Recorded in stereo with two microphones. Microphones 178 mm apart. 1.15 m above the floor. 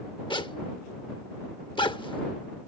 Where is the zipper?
30° left (ahead or behind).